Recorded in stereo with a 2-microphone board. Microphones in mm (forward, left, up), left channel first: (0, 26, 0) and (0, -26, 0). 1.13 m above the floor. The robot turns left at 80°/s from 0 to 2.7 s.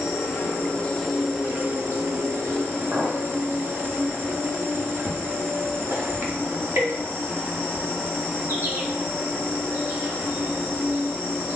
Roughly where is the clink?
Right.